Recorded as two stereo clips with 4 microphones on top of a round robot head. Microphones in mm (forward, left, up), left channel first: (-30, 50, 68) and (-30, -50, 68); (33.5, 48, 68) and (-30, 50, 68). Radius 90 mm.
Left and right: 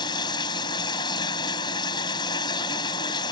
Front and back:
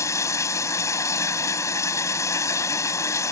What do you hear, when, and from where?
0.0 s running water: 35° left